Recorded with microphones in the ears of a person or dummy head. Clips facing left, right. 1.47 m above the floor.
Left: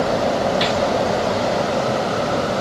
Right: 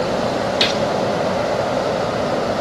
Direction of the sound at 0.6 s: 35° right (ahead or behind).